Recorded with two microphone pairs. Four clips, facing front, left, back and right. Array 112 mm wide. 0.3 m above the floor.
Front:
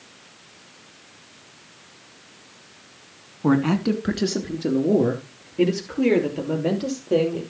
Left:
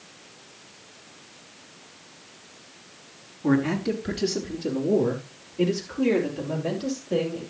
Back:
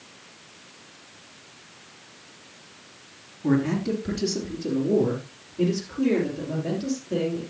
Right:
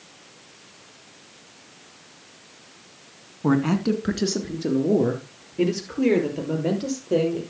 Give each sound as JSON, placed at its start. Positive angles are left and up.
{"t": 3.4, "sound": "a man speaking", "azimuth_deg": -35, "distance_m": 2.5}